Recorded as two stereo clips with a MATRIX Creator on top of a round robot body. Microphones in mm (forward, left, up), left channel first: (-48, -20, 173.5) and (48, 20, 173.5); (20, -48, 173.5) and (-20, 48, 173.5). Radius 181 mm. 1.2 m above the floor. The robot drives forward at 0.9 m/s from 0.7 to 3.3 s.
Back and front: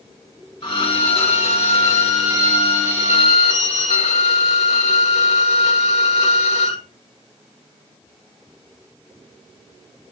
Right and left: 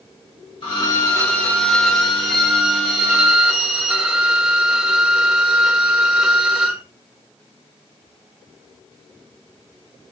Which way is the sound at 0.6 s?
115° right.